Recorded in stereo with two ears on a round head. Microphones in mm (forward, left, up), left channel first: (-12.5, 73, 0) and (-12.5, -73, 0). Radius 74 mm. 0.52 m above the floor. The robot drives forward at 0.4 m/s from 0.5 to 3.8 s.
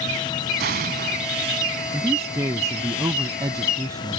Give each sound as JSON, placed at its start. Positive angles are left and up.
{"t": 0.6, "sound": "an explosion", "side_deg": -75}
{"t": 1.9, "sound": "a man speaking", "side_deg": -20}